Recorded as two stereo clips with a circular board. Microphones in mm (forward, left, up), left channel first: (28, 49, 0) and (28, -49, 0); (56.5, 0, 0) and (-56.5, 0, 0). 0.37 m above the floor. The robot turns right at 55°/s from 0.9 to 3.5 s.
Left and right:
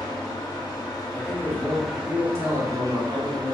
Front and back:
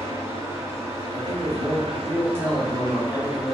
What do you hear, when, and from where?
0.0 s an engine running: 130° left, 1.3 m; by 3.5 s 90° right, 1.3 m
1.1 s a man speaking: 170° left, 1.3 m; by 3.5 s 60° right, 1.3 m